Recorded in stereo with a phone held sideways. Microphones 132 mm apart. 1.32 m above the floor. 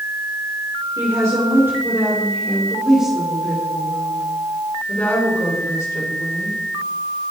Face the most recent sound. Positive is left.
turn(degrees=30)  # may be behind; listen again after turning